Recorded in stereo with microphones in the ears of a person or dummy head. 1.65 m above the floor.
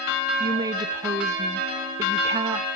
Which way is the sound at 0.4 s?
20° right (ahead or behind).